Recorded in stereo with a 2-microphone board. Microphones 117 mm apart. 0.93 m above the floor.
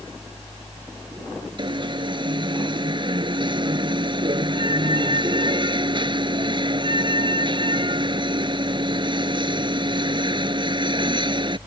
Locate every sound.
1.6 s an alarm: 45° right (ahead or behind)